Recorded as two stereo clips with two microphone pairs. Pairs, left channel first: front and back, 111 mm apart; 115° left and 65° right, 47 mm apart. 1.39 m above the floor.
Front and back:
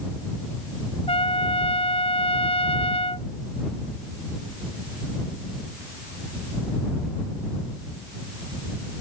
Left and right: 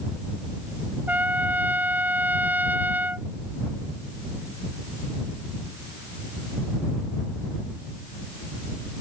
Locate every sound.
1.1 s a trumpet: 20° right